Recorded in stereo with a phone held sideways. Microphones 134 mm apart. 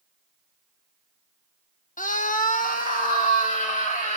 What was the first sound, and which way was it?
A scream, 75° left (ahead or behind).